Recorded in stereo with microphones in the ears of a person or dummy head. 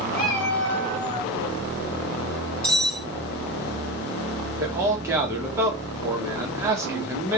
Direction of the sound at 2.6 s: 5° left (ahead or behind).